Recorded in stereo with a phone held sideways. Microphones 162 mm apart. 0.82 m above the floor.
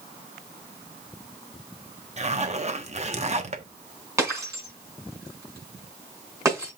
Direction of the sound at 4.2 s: 20° right (ahead or behind).